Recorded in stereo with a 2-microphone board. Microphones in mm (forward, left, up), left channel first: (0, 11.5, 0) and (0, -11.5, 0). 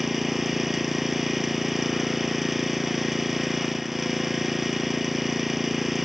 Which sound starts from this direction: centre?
An engine running, at 0.0 s.